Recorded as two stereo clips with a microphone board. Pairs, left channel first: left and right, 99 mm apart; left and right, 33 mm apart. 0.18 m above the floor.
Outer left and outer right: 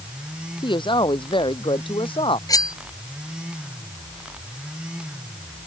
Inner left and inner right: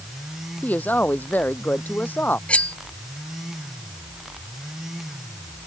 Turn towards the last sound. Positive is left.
turn(degrees=40)  # may be behind; listen again after turning